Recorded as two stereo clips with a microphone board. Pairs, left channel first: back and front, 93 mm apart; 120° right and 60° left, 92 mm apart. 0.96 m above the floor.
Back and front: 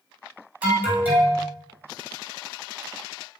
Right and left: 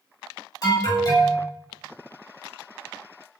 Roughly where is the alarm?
Right.